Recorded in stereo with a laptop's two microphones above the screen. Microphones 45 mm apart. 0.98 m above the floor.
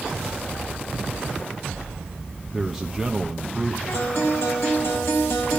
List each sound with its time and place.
2.5 s a man speaking: 5° right (ahead or behind), 0.9 m
3.9 s a guitar: 65° left (ahead or behind), 3.5 m